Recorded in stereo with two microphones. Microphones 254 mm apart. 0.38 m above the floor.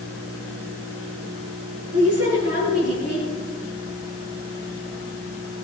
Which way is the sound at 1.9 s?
75° right (ahead or behind).